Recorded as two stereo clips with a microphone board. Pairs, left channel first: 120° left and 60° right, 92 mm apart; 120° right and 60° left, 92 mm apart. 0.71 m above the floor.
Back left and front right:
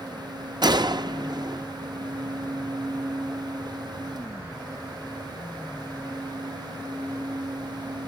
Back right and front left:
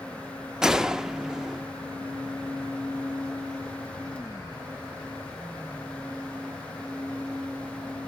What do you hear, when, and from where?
0.6 s a gunshot: 25° right, 0.6 m